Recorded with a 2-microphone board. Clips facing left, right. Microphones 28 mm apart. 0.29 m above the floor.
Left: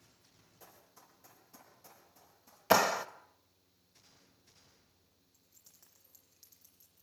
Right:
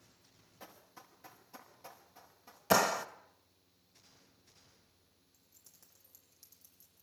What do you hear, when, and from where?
0.6 s running footsteps: 30° right (ahead or behind), 6.5 m
2.7 s a clap: 15° left (ahead or behind), 0.7 m
5.3 s keys jangling: 10° left (ahead or behind), 8.5 m